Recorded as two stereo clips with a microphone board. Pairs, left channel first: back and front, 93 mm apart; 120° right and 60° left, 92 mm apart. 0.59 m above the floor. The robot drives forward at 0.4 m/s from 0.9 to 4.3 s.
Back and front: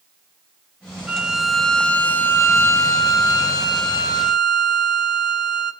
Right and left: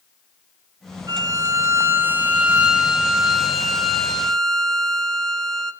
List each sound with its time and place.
1.1 s a violin: 70° left, 0.8 m; by 5.7 s 155° left, 1.4 m